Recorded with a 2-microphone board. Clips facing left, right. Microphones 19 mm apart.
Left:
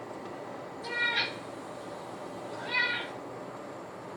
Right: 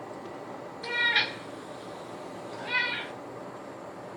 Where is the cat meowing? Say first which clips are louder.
Right 4 dB; 60° right (ahead or behind), 0.7 m; by 3.1 s 25° right (ahead or behind), 1.2 m.